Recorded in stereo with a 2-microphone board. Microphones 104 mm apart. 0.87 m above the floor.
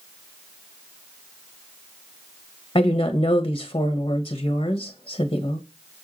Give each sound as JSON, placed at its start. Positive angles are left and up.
{"t": 2.8, "sound": "a woman speaking", "side_deg": 55, "distance_m": 0.6}